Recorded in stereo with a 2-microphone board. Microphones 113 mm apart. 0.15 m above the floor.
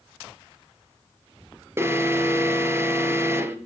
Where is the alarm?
25° right (ahead or behind), 1.9 m.